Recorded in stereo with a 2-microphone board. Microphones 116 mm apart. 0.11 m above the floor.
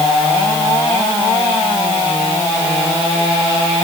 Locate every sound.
Only background noise.